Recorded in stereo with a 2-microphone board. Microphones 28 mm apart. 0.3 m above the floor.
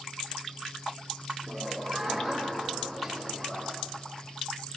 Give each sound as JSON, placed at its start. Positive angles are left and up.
{"t": 1.5, "sound": "laughter", "side_deg": 0, "distance_m": 6.0}